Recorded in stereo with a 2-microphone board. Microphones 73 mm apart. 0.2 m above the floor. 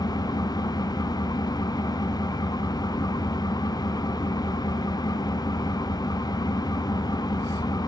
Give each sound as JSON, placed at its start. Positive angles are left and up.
{"t": 0.0, "sound": "an engine running", "side_deg": 65, "distance_m": 0.7}